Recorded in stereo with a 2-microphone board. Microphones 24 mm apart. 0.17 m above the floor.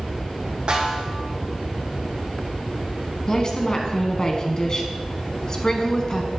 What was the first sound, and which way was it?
A snare drum, 35° right (ahead or behind).